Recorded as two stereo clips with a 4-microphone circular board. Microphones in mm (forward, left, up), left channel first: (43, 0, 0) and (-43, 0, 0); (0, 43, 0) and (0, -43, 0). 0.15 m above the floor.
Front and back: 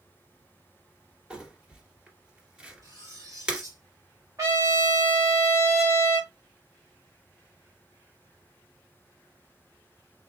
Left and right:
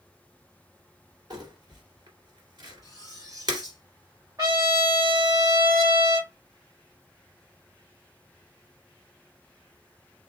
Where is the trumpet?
130° right, 2.5 m.